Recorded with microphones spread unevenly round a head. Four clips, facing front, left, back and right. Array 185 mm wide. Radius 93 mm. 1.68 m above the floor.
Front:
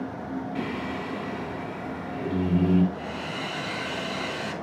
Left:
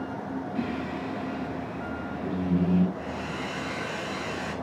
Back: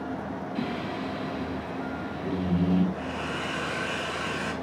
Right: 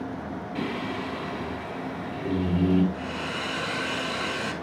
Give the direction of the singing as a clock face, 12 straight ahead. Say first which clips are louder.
Right 3 dB, even; 2 o'clock.